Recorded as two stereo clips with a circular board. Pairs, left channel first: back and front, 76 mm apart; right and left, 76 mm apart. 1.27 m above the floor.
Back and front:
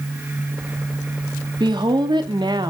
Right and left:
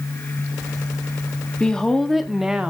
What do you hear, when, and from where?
1.6 s a woman speaking: 10° right, 1.5 m; by 2.7 s 15° left, 1.3 m